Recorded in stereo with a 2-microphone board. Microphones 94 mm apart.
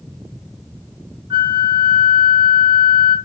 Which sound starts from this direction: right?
A flute, at 1.3 s.